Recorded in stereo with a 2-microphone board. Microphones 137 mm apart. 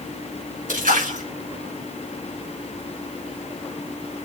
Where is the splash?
80° right, 5 m.